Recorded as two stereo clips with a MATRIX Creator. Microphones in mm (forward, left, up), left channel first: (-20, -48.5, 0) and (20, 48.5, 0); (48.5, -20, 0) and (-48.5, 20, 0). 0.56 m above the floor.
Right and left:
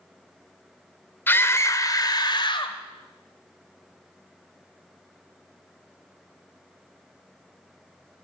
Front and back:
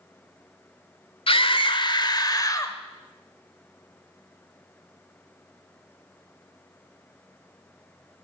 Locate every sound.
1.3 s a scream: 45° right, 1.5 m; by 2.8 s 80° right, 1.9 m